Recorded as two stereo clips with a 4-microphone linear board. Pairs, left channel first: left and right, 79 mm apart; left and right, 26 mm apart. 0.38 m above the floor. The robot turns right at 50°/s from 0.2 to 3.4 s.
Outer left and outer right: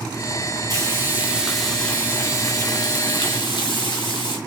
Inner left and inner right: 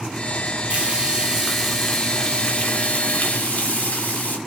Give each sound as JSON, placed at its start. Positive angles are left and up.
{"t": 0.7, "sound": "frying", "azimuth_deg": -45, "distance_m": 3.5}